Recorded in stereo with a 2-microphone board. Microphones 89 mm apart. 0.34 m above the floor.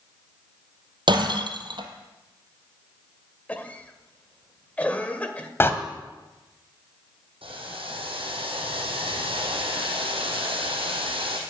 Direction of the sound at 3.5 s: 15° left (ahead or behind).